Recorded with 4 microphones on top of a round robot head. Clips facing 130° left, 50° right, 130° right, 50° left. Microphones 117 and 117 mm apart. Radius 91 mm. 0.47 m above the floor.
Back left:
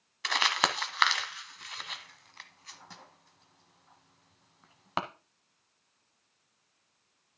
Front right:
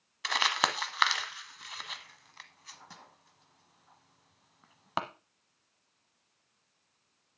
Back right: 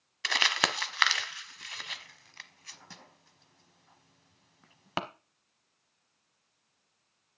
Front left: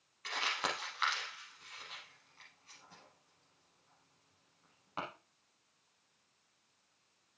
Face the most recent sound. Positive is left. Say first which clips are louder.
# back left 1 dB, back right 7 dB
turn(degrees=-140)